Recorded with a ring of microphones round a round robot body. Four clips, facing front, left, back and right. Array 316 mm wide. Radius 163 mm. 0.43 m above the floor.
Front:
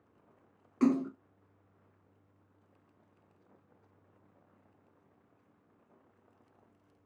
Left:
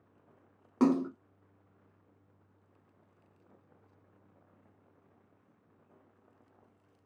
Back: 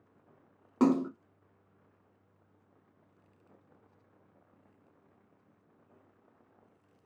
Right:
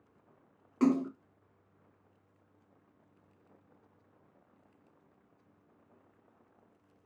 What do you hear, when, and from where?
0.8 s a splash: 145° left, 0.7 m